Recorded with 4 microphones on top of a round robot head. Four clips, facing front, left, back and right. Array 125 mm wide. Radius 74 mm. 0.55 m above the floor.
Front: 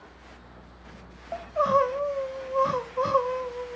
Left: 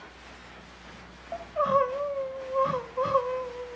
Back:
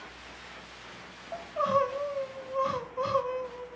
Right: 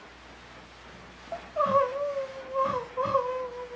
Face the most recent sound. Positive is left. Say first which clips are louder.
# even, front 4 dB
turn(degrees=0)